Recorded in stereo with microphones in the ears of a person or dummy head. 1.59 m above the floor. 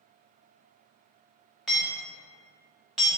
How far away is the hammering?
About 0.8 m.